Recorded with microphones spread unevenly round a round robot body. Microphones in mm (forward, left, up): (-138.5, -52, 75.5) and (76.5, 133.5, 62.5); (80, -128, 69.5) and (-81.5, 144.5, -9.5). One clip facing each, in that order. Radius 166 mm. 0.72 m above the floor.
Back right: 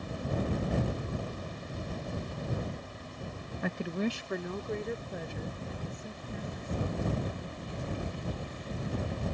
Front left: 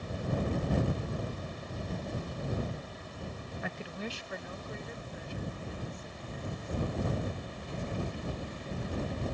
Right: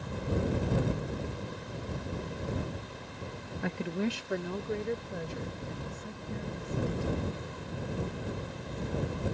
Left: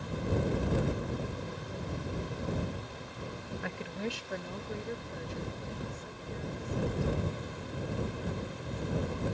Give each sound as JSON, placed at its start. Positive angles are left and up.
{"t": 3.6, "sound": "a woman speaking", "azimuth_deg": -110}